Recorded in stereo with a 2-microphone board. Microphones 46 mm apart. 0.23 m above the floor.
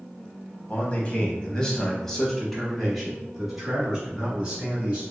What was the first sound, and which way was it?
A man speaking, 30° left (ahead or behind).